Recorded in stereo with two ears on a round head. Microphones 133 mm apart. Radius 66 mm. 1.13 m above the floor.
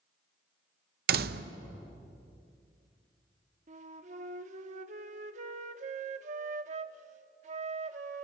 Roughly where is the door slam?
Right.